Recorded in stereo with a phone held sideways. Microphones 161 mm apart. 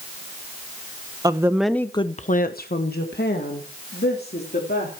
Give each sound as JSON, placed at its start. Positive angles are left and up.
{"t": 1.2, "sound": "a woman speaking", "side_deg": -25, "distance_m": 1.1}